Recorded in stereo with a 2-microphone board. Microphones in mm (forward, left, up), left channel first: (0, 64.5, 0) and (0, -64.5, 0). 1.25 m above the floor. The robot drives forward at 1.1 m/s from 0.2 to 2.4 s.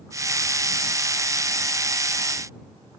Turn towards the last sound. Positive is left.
No sound to turn to.